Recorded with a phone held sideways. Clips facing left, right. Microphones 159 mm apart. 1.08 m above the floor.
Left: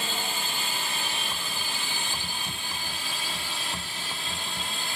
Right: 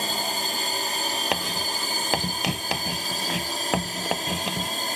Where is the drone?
40° right (ahead or behind).